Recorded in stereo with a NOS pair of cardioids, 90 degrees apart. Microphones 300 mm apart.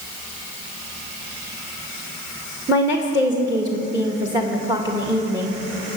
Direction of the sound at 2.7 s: 10° right.